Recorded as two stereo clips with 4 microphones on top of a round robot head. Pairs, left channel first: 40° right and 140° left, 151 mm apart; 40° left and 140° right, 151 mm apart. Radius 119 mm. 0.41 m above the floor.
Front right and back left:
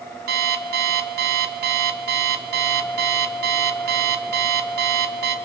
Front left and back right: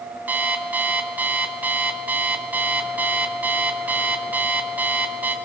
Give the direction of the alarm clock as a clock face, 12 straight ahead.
7 o'clock.